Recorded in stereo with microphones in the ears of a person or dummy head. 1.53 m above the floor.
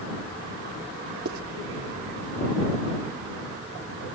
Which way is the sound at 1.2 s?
60° right (ahead or behind).